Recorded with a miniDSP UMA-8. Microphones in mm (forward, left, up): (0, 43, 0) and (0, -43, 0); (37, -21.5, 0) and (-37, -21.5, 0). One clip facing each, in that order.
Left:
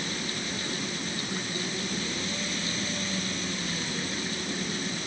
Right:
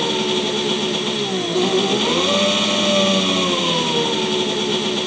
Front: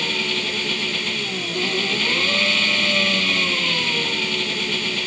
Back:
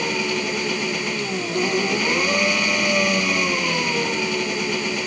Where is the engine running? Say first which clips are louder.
Right 15 dB, back 3 dB; 105° right.